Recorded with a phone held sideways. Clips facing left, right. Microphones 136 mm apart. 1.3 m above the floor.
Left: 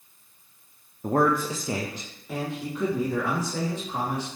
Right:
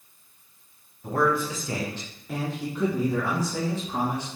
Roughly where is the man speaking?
Left.